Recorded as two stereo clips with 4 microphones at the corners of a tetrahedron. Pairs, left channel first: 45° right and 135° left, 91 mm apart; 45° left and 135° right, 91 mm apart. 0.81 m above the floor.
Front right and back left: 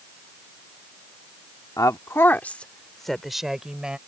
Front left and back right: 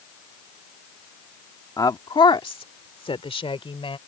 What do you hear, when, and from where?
1.8 s a woman speaking: straight ahead; by 4.0 s 55° left